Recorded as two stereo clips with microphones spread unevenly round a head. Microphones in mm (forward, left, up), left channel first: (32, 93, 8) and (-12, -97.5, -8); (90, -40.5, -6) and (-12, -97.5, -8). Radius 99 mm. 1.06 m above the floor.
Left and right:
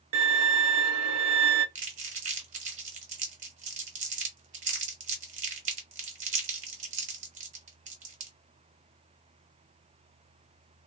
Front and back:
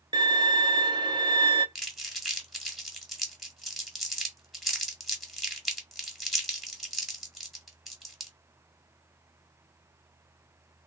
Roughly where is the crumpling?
Ahead right.